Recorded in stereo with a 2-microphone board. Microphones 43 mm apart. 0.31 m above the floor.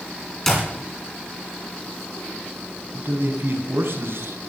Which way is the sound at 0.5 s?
10° left (ahead or behind).